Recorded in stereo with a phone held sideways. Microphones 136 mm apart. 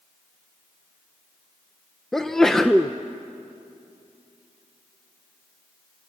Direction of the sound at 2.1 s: 5° left (ahead or behind).